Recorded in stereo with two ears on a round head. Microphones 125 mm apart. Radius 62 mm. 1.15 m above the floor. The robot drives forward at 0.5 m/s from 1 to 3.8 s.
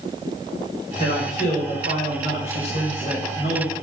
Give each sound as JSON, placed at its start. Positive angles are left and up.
{"t": 1.0, "sound": "a man speaking", "side_deg": 45, "distance_m": 5.0}